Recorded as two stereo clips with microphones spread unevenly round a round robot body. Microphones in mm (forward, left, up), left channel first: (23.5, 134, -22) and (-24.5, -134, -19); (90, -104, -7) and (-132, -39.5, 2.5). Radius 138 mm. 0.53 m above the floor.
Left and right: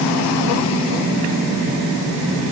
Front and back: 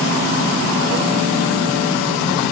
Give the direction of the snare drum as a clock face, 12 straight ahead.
I don't hear a snare drum.